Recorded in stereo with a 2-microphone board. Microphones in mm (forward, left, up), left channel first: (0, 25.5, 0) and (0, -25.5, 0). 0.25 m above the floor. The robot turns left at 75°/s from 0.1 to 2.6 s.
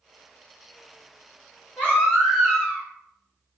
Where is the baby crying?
35° left, 1.6 m; by 2.8 s 30° right, 1.6 m.